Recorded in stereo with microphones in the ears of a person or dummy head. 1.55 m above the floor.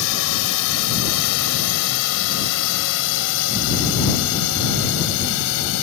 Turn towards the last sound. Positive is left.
turn(degrees=65)  # may be behind; listen again after turning